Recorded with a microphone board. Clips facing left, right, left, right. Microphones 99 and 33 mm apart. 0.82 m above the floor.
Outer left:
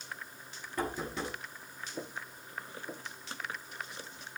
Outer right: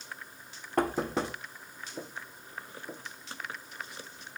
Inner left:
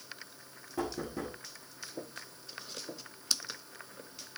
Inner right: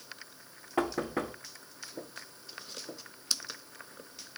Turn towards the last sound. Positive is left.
turn(degrees=-60)  # may be behind; listen again after turning